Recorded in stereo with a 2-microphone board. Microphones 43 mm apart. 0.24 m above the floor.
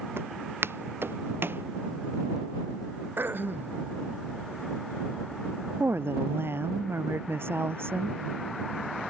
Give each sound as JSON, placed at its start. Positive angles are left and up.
{"t": 0.2, "sound": "footsteps", "side_deg": -85}
{"t": 3.2, "sound": "throat clearing", "side_deg": -60}
{"t": 5.8, "sound": "a woman speaking", "side_deg": -75}